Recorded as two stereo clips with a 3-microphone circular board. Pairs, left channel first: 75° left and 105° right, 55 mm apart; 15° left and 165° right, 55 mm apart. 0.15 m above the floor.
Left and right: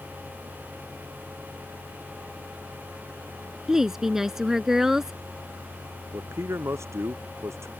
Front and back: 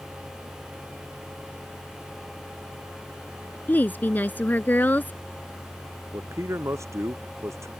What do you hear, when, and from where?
3.7 s a woman speaking: 25° right
6.1 s a man speaking: 135° right